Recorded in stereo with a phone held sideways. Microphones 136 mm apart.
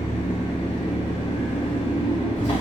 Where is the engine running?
55° left (ahead or behind), 2.0 m.